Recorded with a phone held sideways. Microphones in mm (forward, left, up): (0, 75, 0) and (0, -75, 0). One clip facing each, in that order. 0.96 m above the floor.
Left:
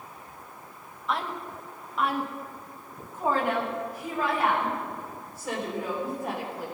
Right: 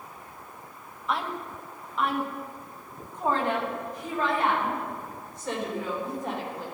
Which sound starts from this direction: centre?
A woman speaking, at 1.1 s.